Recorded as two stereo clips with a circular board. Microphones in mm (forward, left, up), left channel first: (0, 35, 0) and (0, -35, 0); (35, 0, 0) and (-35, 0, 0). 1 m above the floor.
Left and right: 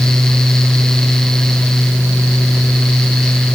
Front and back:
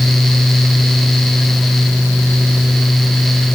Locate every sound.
Only background noise.